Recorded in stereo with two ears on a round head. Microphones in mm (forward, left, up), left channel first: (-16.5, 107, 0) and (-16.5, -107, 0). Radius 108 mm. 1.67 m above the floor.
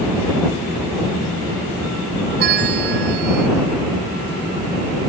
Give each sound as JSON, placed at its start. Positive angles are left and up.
{"t": 2.4, "sound": "a bell", "side_deg": -45}